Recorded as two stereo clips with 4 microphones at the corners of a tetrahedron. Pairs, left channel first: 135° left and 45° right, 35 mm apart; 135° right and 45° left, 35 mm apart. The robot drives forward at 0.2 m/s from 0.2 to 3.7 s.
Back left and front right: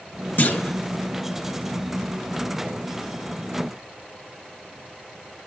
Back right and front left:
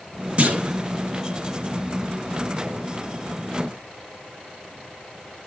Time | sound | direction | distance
0.4 | a clunk | 100° left | 1.4 m